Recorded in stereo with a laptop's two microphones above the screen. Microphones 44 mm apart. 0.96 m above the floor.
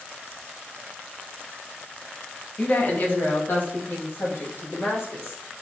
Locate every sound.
2.6 s a woman speaking: 35° left (ahead or behind), 0.7 m; by 5.4 s 60° left (ahead or behind), 2 m